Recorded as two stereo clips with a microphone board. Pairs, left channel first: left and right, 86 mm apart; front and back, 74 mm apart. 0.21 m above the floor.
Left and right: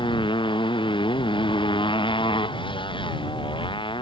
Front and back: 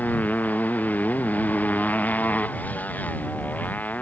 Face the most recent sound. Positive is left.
turn(degrees=70)